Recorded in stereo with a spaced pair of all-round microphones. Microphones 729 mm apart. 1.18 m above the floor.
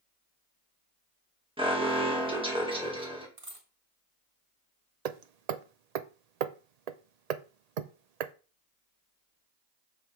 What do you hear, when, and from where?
1.6 s an alarm: 5° right (ahead or behind), 1.9 m
3.4 s a dropped coin: 45° right (ahead or behind), 1.9 m
5.0 s hammering: 60° right (ahead or behind), 0.6 m